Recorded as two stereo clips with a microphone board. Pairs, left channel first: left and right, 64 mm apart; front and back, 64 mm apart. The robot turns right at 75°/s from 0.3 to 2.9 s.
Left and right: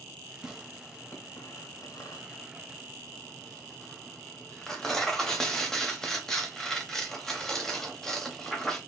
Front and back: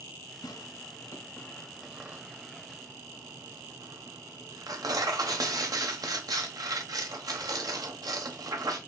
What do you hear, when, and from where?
0.4 s tearing paper: 15° right, 1.0 m; by 8.8 s 170° left, 1.0 m